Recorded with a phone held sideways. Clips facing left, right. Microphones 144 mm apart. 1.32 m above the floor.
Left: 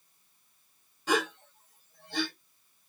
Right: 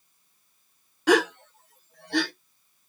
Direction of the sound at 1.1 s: 75° right (ahead or behind).